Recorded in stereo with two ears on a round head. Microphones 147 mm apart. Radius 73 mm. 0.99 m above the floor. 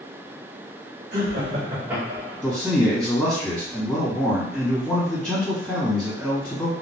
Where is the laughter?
45° right (ahead or behind), 1.5 m; by 2.4 s 5° left (ahead or behind), 1.8 m.